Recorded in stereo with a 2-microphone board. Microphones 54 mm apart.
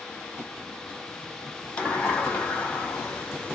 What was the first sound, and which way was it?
A sliding door, 20° left (ahead or behind).